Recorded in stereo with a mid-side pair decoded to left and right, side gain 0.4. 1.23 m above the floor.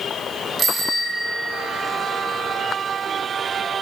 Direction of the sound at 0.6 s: 45° right.